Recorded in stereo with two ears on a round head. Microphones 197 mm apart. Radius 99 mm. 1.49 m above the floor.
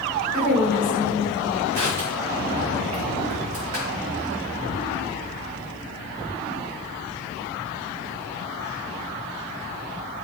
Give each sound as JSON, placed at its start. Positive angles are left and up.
{"t": 0.3, "sound": "a woman speaking", "side_deg": -20, "distance_m": 5.5}
{"t": 1.7, "sound": "crushing", "side_deg": -70, "distance_m": 3.5}